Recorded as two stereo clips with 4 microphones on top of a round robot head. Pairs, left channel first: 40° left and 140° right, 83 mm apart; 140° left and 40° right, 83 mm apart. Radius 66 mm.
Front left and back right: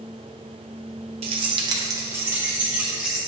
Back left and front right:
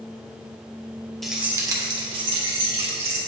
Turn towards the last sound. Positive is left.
turn(degrees=-55)